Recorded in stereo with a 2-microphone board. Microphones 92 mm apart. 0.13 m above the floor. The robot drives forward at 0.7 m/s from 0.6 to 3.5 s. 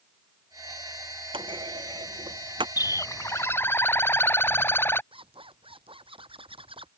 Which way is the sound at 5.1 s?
75° right (ahead or behind).